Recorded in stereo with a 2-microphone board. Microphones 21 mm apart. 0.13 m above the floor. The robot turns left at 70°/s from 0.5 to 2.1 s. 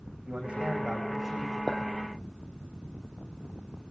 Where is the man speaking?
110° right, 9.5 m; by 1.6 s 175° left, 9.5 m.